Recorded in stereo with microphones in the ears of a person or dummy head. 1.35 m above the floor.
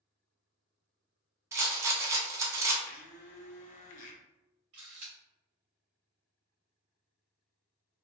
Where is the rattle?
20° right (ahead or behind), 0.6 m.